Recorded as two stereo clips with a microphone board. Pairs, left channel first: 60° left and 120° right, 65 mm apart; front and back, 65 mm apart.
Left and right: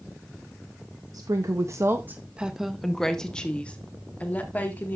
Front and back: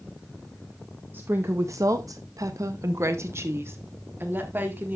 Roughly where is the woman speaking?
Behind right.